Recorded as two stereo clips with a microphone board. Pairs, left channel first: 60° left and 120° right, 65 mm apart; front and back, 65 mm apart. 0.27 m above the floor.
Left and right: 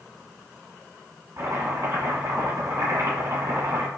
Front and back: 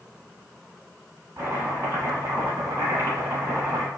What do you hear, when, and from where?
1.4 s chopping: 145° right, 1.4 m